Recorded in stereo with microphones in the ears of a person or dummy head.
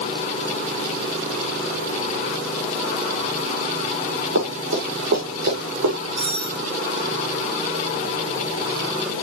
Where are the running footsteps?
80° right, 7.5 m.